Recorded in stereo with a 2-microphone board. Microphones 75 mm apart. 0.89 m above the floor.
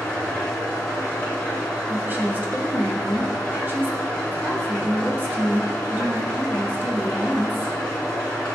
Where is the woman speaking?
25° right (ahead or behind), 0.7 m.